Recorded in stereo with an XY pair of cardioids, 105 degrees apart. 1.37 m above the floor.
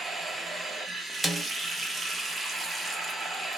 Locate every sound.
0.0 s running water: 20° right, 0.8 m
1.2 s a snare drum: 5° right, 0.6 m